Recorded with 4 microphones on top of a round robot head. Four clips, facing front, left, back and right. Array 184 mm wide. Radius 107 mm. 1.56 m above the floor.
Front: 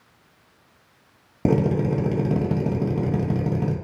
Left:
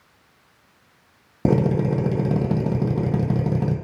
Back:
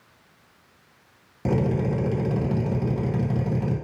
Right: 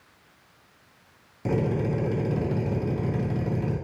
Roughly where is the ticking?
No ticking in this recording.